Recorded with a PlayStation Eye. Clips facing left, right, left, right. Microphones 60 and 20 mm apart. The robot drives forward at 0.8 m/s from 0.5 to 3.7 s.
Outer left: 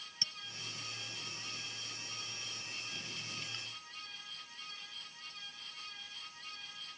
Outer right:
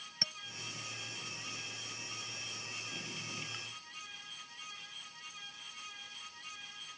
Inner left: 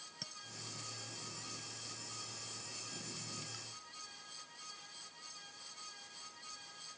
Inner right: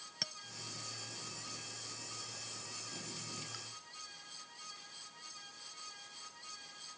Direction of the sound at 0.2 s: 45° right (ahead or behind).